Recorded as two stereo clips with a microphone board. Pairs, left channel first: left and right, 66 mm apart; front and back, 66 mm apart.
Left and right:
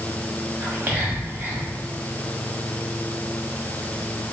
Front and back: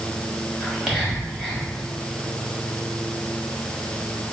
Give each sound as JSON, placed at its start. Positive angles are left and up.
{"t": 0.6, "sound": "whispering", "azimuth_deg": -90, "distance_m": 1.4}